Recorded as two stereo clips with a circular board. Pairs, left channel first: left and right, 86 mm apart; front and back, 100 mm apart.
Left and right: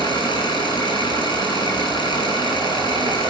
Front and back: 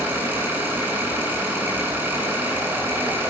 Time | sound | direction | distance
0.0 | an engine running | 110° left | 9 m